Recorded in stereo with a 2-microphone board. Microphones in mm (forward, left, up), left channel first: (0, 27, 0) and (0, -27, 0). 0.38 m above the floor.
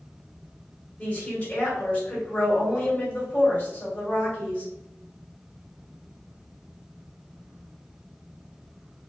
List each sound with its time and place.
1.0 s a woman speaking: 20° left (ahead or behind), 1.3 m